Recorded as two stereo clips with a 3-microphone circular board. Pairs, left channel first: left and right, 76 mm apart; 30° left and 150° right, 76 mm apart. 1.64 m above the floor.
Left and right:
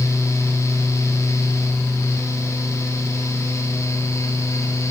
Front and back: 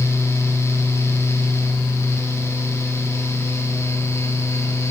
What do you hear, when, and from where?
Only background noise.